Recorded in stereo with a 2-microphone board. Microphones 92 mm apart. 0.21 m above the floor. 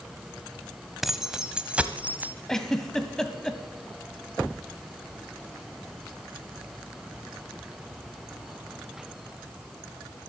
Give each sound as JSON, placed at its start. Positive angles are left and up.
{"t": 1.0, "sound": "keys jangling", "side_deg": -5, "distance_m": 0.8}
{"t": 2.5, "sound": "a giggle", "side_deg": 5, "distance_m": 1.2}